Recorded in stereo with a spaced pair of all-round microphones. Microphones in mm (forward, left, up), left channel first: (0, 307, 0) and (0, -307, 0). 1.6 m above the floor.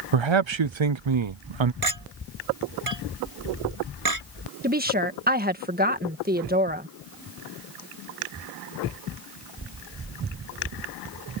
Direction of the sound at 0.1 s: 50° right (ahead or behind).